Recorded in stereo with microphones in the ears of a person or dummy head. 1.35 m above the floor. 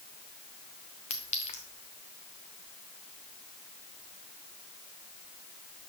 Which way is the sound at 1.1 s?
30° left (ahead or behind).